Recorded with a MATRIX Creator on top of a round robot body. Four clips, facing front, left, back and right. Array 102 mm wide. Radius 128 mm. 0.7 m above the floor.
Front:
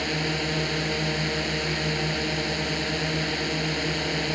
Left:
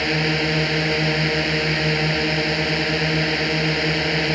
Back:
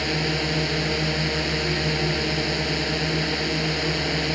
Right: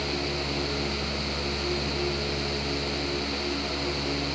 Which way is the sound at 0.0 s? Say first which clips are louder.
Left 9 dB, back 2 dB; 95° left.